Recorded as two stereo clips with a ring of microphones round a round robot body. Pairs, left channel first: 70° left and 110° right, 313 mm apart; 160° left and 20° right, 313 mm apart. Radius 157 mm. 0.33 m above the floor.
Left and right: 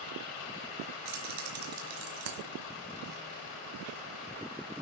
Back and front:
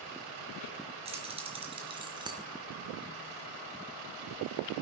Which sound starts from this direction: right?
Keys jangling, at 1.1 s.